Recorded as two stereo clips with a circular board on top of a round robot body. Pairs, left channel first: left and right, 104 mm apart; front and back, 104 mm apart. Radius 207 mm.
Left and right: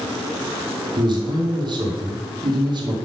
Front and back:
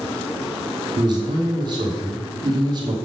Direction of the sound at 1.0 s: 135° right.